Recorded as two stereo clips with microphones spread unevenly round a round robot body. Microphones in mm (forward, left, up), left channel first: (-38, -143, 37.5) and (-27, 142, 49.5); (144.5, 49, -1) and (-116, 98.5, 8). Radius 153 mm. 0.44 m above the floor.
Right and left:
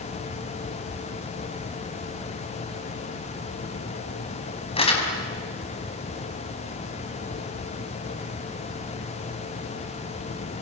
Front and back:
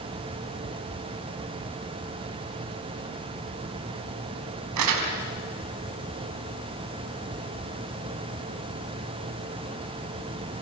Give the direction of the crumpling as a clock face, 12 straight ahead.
5 o'clock.